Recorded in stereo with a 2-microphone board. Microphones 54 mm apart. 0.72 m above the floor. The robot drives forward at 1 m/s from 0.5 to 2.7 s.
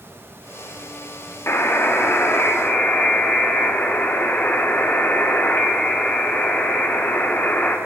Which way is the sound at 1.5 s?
55° left (ahead or behind).